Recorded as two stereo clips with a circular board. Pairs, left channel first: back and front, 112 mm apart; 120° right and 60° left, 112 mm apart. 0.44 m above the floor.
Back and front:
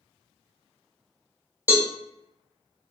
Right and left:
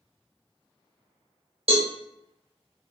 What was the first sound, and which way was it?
A cowbell, 70° left.